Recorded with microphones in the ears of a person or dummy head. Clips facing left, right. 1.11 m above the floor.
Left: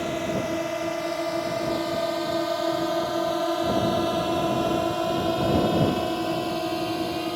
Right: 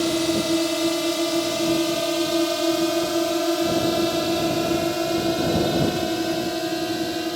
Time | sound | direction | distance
0.0 | a drone | 45° right (ahead or behind) | ?